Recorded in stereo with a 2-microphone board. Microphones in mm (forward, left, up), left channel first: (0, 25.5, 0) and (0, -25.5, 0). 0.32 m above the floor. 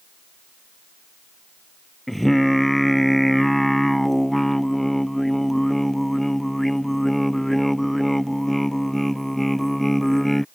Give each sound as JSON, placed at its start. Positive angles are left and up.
{"t": 2.1, "sound": "singing", "side_deg": 0}